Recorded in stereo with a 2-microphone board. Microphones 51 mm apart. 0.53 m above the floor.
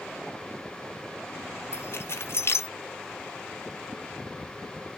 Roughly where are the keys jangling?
Left.